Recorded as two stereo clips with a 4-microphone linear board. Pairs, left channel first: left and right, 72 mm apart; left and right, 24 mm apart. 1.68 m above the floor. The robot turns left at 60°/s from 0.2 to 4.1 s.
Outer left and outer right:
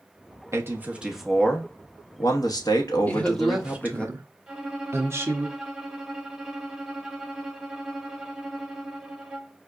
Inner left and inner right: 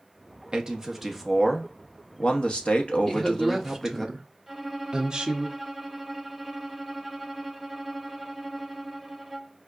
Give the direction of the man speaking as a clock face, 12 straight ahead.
5 o'clock.